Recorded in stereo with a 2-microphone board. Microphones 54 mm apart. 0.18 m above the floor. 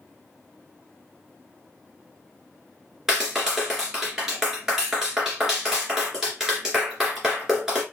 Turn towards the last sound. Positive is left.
turn(degrees=-10)  # may be behind; listen again after turning